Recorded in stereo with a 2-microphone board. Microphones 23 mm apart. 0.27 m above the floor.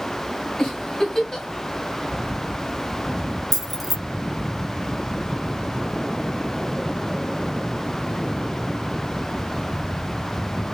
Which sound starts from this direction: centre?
Keys jangling, at 3.5 s.